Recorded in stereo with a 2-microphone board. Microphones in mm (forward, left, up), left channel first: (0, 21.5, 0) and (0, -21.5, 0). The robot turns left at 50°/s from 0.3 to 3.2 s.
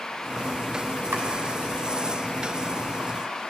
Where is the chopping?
80° right, 3 m; by 1.2 s 75° right (ahead or behind), 3 m.